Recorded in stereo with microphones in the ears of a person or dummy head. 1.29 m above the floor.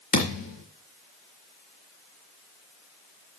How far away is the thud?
About 3.5 m.